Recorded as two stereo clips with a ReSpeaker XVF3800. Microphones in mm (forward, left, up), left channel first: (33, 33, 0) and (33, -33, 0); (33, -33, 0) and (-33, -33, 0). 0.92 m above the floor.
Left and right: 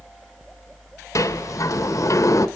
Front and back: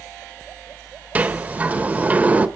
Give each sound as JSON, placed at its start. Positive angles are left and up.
{"t": 1.1, "sound": "a sliding door", "azimuth_deg": 115, "distance_m": 1.0}